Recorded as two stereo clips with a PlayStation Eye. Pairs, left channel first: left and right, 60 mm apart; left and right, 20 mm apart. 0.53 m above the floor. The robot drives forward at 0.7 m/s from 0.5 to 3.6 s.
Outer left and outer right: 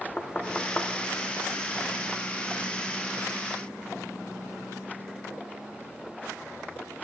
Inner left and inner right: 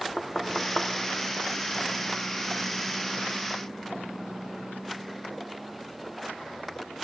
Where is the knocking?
15° left (ahead or behind), 0.9 m; by 0.9 s 20° left (ahead or behind), 0.8 m.